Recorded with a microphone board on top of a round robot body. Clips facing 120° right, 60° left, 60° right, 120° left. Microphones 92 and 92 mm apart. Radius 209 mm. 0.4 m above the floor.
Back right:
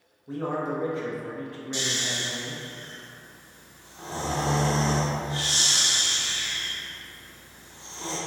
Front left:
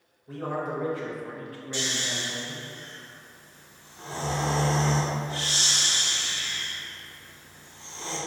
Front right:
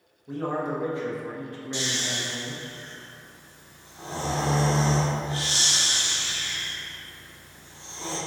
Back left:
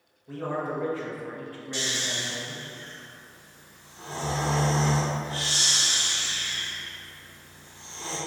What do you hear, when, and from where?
0.3 s a man speaking: 100° right, 1.1 m
1.7 s snoring: 90° right, 1.3 m